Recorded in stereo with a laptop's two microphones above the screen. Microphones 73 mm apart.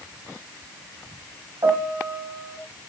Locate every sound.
1.6 s a piano: 50° right (ahead or behind), 2 m